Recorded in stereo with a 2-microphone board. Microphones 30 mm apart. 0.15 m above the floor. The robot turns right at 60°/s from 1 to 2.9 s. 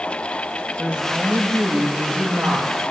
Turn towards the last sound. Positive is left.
turn(degrees=-40)